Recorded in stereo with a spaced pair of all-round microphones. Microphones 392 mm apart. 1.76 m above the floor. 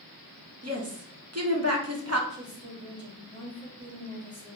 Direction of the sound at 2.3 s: 10° left (ahead or behind).